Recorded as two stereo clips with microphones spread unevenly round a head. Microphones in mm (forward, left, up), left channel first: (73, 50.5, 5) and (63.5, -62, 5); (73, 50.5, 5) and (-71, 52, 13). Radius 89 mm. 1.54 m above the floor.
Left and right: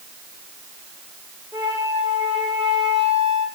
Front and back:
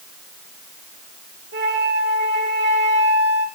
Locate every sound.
1.5 s a flute: 160° right, 1.7 m